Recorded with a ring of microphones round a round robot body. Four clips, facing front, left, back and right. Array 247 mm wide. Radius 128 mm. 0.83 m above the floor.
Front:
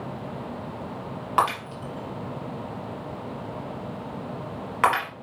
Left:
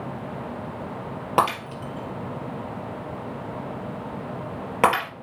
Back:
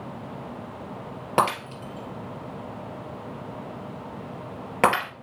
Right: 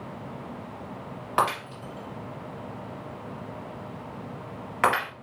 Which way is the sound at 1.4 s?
130° left.